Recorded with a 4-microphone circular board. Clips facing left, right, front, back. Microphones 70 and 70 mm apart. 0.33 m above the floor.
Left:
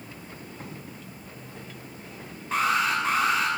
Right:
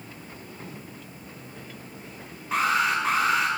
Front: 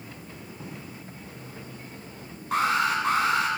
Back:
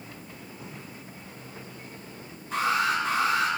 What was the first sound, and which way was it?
Writing, 60° left.